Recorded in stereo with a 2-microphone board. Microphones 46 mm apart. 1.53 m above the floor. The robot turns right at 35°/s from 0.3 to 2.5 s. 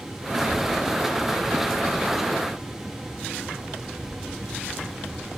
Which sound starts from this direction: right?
A child speaking, at 0.3 s.